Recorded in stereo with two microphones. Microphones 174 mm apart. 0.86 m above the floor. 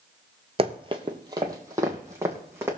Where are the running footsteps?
35° right (ahead or behind), 1.1 m; by 2.7 s 15° right (ahead or behind), 3.5 m.